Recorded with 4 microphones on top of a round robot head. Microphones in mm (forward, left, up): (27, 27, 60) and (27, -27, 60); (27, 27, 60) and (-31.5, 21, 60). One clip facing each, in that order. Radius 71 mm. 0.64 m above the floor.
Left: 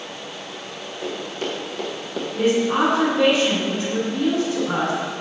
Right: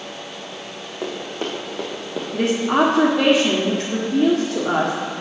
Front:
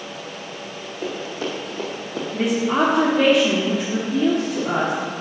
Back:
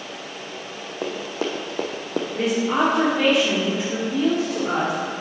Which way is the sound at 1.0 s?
150° right.